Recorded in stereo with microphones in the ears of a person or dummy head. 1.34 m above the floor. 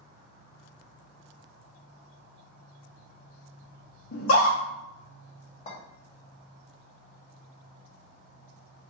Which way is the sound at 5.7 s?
35° left (ahead or behind).